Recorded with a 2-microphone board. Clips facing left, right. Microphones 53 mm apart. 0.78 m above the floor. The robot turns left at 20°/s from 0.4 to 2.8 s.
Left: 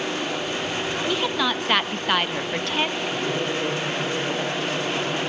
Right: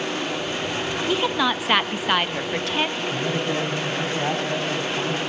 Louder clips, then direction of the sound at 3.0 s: Even; 85° right.